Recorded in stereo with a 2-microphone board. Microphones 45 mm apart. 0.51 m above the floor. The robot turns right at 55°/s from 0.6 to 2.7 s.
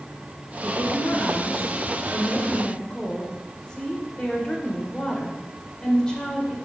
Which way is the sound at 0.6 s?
45° left.